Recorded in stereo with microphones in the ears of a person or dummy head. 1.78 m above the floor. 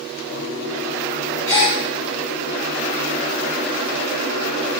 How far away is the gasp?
About 0.8 m.